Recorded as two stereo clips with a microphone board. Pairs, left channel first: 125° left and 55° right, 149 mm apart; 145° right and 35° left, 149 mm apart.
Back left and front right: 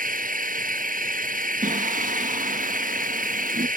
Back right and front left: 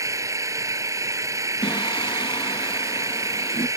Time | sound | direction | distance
0.0 | an engine running | 35° right | ?
1.6 | singing | 85° right | ?